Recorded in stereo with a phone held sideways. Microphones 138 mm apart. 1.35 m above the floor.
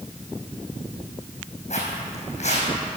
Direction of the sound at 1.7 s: 55° left (ahead or behind).